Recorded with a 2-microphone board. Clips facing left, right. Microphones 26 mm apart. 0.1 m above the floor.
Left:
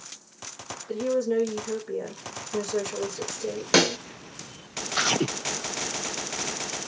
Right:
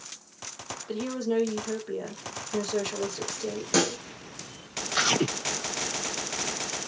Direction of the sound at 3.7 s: 45° left (ahead or behind).